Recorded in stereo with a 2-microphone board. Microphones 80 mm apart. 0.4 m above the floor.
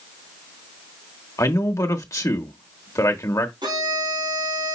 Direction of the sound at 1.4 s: 45° left (ahead or behind).